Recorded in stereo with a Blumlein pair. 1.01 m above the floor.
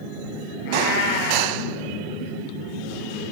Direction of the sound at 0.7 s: 45° left.